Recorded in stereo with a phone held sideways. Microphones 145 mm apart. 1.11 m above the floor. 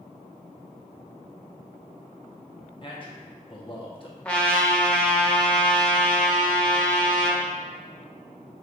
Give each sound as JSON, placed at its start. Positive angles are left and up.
{"t": 2.8, "sound": "a man speaking", "side_deg": 35, "distance_m": 0.9}
{"t": 4.2, "sound": "a trumpet", "side_deg": 5, "distance_m": 0.6}